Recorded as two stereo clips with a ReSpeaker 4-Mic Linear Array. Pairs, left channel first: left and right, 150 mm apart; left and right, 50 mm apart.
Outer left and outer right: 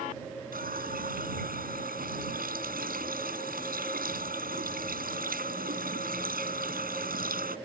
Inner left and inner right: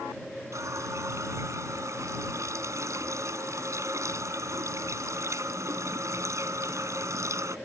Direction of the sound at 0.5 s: 75° right (ahead or behind).